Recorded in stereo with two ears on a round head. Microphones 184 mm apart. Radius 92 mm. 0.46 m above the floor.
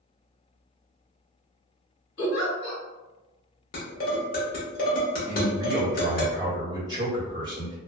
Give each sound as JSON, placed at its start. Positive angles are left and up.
{"t": 2.2, "sound": "a giggle", "side_deg": 55, "distance_m": 1.7}
{"t": 3.7, "sound": "dishes clattering", "side_deg": 45, "distance_m": 1.0}
{"t": 5.3, "sound": "a man speaking", "side_deg": -20, "distance_m": 1.3}